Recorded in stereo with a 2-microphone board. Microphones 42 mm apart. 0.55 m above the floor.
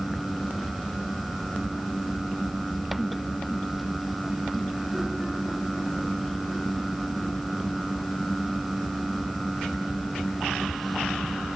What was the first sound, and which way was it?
Only background noise.